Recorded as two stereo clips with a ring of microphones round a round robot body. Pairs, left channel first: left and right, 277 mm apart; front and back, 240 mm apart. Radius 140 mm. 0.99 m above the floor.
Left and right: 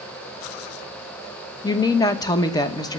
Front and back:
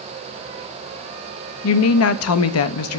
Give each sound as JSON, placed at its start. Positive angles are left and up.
{"t": 1.6, "sound": "a woman speaking", "azimuth_deg": 15, "distance_m": 0.7}